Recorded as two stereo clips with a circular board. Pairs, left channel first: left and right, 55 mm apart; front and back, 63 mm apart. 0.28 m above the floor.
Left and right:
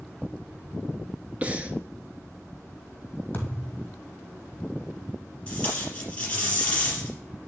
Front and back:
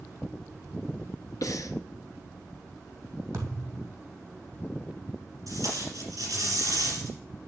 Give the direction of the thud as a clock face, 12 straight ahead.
7 o'clock.